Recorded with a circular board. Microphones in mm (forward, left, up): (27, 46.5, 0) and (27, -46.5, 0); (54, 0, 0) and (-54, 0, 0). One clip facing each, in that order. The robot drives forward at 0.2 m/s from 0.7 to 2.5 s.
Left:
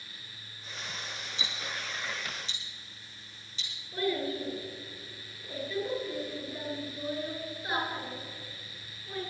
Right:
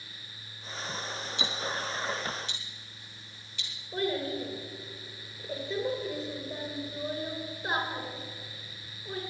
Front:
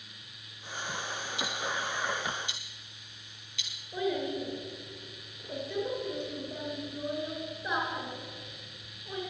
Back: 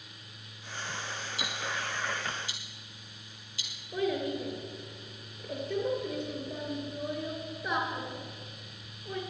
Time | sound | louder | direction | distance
1.4 | ticking | right 6 dB, front 2 dB | 125° right | 3.5 m
3.9 | a child speaking | even, back 1 dB | 150° right | 3.5 m